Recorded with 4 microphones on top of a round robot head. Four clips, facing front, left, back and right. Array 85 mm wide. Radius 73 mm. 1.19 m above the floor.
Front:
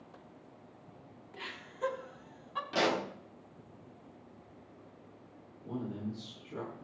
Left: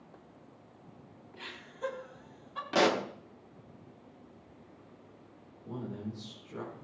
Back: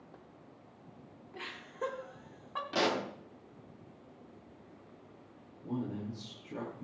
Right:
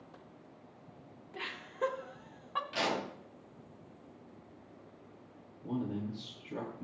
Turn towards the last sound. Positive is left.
turn(degrees=-120)